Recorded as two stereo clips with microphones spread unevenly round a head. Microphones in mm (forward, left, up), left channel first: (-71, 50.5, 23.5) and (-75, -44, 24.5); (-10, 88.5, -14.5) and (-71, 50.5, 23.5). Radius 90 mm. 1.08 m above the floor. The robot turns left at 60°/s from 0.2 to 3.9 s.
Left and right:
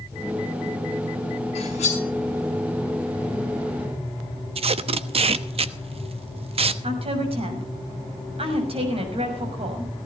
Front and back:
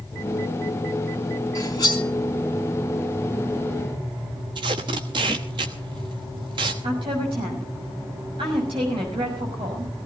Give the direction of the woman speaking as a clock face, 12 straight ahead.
4 o'clock.